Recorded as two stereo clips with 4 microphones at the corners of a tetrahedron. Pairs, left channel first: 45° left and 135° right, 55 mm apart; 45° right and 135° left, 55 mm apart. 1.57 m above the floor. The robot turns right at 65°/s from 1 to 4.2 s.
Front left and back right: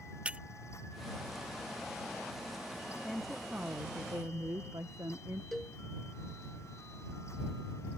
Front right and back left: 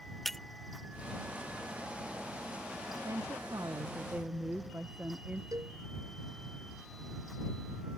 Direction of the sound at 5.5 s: 130° left.